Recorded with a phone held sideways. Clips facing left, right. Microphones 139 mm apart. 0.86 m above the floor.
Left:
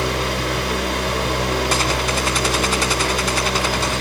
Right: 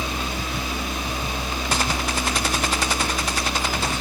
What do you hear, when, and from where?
0.0 s a fan: 75° left (ahead or behind), 1.9 m